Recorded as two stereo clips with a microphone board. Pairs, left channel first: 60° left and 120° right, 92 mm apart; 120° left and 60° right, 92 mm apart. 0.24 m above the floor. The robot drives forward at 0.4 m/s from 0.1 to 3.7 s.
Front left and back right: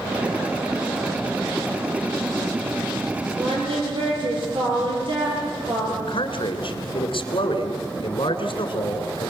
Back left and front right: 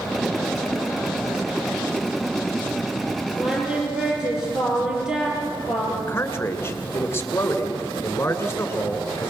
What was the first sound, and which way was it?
Singing, 140° right.